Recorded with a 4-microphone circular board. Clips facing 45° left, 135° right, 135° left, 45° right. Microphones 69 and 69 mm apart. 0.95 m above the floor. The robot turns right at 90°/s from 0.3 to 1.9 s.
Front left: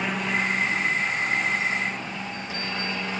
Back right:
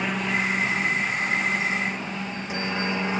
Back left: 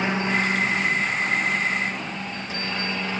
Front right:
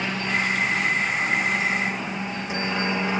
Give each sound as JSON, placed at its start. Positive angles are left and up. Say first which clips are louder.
{"t": 0.0, "sound": "a helicopter", "louder": "even, back left 2 dB", "azimuth_deg": 140}